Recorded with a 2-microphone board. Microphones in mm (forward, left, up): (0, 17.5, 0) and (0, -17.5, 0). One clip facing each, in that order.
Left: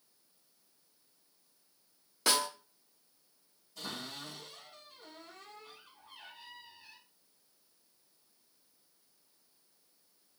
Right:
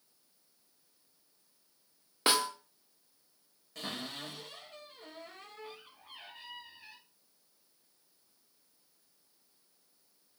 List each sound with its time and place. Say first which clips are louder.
2.3 s a snare drum: right 2 dB; 30° right (ahead or behind), 1.4 m
3.8 s a cupboard door: right 2 dB; 75° right (ahead or behind), 5 m